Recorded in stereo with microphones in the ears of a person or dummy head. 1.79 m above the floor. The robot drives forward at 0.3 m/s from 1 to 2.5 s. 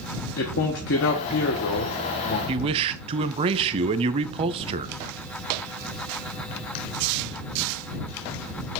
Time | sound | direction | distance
0.4 | a man speaking | 65° left (ahead or behind) | 1.3 m
2.5 | a man speaking | 30° right (ahead or behind) | 0.5 m